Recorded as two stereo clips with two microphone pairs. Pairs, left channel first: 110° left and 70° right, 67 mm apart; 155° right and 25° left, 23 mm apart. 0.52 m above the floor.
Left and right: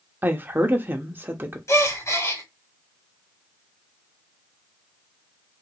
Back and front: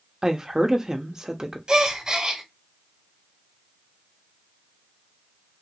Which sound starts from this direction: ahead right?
A woman speaking, at 0.2 s.